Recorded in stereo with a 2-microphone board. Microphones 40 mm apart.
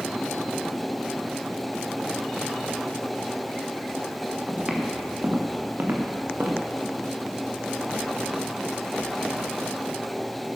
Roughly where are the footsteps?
Centre.